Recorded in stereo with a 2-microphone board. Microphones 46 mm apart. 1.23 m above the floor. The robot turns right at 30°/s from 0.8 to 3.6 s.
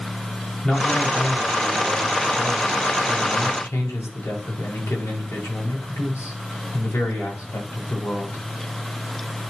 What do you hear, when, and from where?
0.6 s a man speaking: 15° left, 6.5 m; by 8.4 s 95° left, 6.5 m